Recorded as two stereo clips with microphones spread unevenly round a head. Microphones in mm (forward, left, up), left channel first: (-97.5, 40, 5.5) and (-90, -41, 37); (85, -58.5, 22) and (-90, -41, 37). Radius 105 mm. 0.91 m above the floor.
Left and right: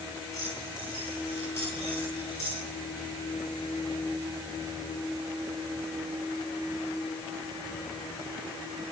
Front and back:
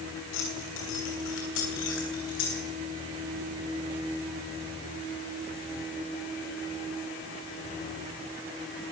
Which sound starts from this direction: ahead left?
Keys jangling, at 0.3 s.